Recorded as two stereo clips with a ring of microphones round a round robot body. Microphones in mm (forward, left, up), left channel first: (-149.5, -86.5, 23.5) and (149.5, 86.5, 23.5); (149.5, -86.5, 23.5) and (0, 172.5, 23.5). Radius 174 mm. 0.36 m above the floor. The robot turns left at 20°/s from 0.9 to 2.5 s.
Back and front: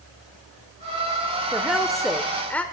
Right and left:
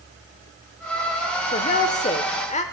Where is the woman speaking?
50° right, 0.9 m; by 2.6 s 70° right, 0.9 m.